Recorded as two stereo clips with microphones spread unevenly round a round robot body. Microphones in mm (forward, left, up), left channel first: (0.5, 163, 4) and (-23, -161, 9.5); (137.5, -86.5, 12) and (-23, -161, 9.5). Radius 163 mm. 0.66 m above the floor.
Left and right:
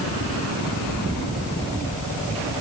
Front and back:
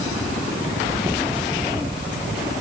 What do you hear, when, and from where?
Only background noise.